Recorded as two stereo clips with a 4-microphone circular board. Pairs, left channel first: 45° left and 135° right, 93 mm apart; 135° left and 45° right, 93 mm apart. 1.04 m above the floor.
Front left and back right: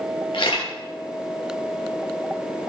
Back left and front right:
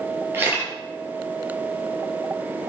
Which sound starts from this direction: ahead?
A camera shutter, at 0.3 s.